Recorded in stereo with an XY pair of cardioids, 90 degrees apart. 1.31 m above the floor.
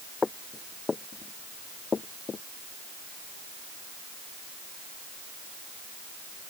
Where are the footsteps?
30° left; by 2.4 s 45° left.